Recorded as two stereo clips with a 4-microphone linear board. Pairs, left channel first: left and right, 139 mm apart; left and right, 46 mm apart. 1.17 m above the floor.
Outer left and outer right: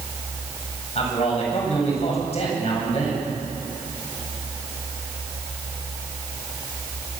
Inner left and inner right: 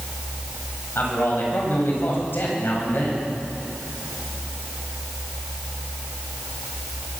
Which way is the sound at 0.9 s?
45° left (ahead or behind).